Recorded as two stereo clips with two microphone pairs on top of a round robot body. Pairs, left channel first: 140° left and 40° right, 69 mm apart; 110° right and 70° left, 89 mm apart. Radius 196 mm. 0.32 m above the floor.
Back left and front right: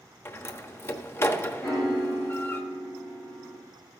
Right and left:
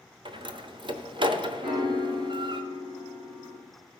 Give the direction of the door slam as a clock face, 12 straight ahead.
9 o'clock.